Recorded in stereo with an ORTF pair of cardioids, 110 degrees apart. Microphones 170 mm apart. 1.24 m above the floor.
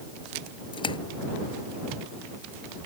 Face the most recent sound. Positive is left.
turn(degrees=30)